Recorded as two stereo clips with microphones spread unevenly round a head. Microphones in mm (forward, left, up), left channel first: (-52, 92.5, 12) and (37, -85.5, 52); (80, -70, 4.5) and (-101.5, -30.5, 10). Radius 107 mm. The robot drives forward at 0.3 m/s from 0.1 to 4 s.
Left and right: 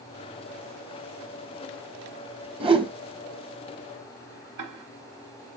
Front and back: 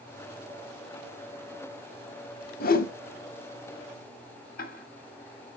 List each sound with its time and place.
2.6 s a whoosh: 5° left, 1.2 m
4.6 s ticking: 55° right, 1.8 m